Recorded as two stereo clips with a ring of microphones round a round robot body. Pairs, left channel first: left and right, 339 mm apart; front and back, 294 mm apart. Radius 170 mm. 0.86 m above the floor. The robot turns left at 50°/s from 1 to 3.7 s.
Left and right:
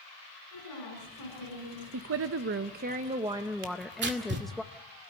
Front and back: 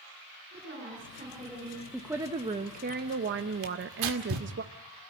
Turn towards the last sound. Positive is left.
turn(degrees=-150)